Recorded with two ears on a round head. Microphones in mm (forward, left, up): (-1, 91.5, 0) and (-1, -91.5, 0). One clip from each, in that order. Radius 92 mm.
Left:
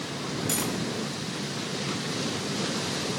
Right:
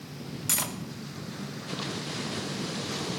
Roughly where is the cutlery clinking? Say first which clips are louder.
Right 1 dB; centre.